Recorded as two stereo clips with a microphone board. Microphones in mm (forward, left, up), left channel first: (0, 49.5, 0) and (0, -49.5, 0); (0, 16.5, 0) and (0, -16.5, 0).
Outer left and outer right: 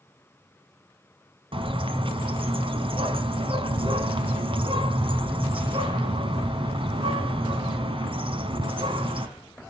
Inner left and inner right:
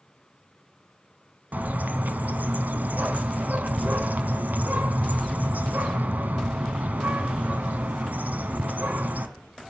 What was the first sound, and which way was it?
A bird, 60° right (ahead or behind).